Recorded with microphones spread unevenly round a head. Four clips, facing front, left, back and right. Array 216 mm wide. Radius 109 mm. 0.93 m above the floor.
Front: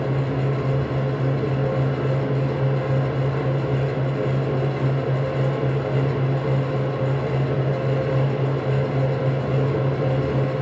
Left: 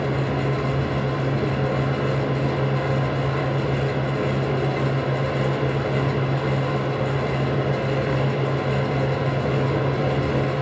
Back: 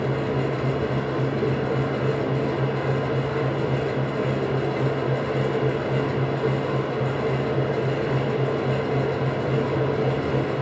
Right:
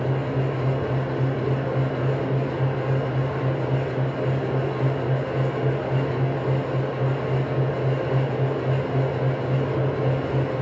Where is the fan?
90° left, 1.0 m.